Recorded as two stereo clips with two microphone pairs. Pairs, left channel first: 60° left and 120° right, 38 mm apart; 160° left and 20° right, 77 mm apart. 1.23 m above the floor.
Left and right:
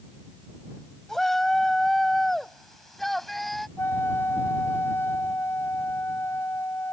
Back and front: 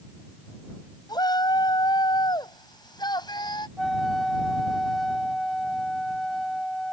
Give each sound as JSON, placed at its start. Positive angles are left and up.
{"t": 1.1, "sound": "a shout", "azimuth_deg": 135}
{"t": 3.8, "sound": "a flute", "azimuth_deg": 70}